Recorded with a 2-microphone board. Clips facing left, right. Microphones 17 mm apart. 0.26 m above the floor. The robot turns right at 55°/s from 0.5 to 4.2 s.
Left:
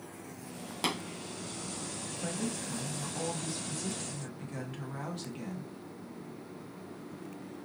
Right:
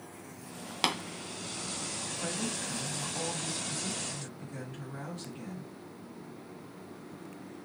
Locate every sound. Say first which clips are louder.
0.8 s tapping: right 3 dB; 35° right (ahead or behind), 1.0 m
2.2 s a woman speaking: even; 75° right, 2.0 m; by 5.7 s 40° left, 2.0 m